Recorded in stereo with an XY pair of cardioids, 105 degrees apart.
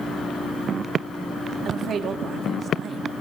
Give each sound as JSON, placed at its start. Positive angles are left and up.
{"t": 1.6, "sound": "a man speaking", "azimuth_deg": -60, "distance_m": 2.5}